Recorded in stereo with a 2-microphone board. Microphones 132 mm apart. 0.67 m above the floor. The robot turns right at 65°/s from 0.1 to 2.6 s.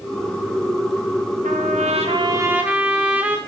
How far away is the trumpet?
About 0.7 m.